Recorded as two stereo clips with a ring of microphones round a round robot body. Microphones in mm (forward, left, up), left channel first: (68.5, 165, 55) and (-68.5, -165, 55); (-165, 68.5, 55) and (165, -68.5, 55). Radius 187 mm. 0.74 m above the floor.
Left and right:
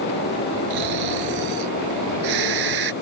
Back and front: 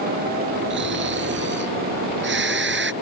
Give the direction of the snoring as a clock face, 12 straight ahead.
3 o'clock.